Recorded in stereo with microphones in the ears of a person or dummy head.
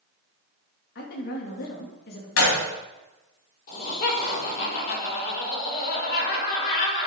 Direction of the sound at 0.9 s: 60° left (ahead or behind).